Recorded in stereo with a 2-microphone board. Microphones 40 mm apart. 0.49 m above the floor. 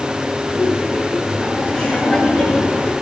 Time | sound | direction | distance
0.5 | laughter | 10° right (ahead or behind) | 7.5 m